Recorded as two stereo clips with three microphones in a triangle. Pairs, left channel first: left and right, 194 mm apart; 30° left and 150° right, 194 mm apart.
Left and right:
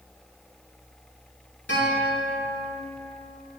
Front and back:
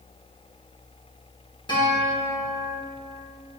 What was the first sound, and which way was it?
A guitar, 95° left.